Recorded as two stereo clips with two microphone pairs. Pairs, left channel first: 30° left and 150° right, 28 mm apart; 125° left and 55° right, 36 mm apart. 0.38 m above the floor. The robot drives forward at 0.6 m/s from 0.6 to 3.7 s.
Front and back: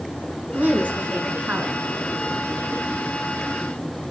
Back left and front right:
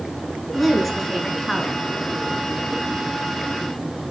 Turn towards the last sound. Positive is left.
turn(degrees=-155)